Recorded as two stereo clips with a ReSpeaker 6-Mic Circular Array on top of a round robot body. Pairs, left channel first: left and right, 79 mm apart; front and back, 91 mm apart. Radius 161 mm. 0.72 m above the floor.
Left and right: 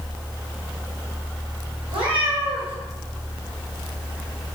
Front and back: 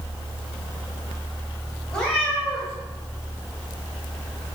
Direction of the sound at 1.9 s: 85° right.